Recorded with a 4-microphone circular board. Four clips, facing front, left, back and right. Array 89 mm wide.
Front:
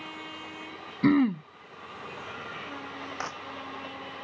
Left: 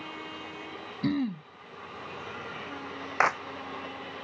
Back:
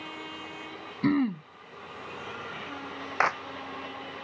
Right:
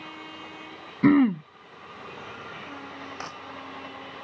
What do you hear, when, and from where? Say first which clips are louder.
1.0 s throat clearing: right 11 dB, front 3 dB; 75° right
3.2 s a clap: left 17 dB, back 12 dB; 125° left